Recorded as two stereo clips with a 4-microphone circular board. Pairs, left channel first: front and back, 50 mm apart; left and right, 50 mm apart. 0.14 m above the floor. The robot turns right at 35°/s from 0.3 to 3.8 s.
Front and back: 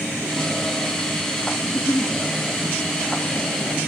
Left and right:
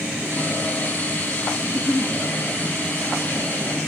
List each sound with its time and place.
1.6 s a giggle: 30° left, 2.5 m; by 2.1 s 45° left, 2.5 m